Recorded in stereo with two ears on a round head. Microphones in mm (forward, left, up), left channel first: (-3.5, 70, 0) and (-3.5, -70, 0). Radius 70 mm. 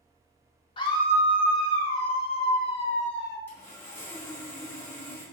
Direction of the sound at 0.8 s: 35° left (ahead or behind).